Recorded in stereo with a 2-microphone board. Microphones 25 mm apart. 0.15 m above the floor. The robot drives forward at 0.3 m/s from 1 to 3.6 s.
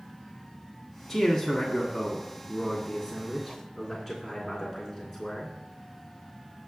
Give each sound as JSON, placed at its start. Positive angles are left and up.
{"t": 1.1, "sound": "a man speaking", "side_deg": 0, "distance_m": 1.3}